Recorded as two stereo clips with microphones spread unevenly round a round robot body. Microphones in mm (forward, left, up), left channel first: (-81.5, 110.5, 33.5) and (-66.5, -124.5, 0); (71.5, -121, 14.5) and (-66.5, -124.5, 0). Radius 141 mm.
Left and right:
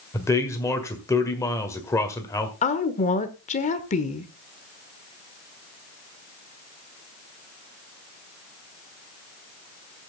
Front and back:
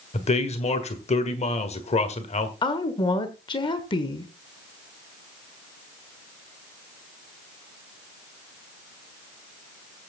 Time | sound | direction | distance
0.1 | a man speaking | 10° left | 1.7 m
2.6 | a woman speaking | 40° left | 1.2 m